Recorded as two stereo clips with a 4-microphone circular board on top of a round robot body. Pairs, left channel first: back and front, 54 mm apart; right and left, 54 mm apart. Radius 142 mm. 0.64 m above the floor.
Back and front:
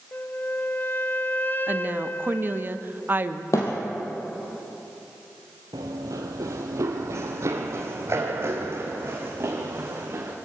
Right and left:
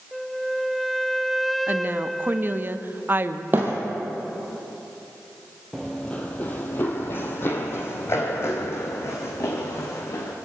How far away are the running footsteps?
About 0.8 m.